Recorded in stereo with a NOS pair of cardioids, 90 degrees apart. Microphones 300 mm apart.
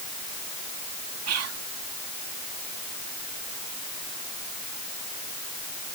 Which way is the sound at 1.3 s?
55° right.